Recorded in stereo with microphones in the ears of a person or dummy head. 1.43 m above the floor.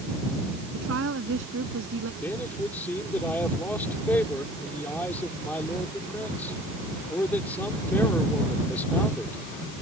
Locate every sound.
0.7 s a woman speaking: 75° right (ahead or behind)
2.2 s a man speaking: 10° left (ahead or behind)